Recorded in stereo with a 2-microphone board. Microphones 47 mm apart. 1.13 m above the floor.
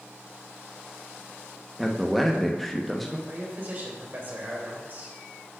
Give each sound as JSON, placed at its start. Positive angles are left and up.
{"t": 1.8, "sound": "a man speaking", "side_deg": 0, "distance_m": 1.1}
{"t": 3.3, "sound": "a man speaking", "side_deg": -45, "distance_m": 3.0}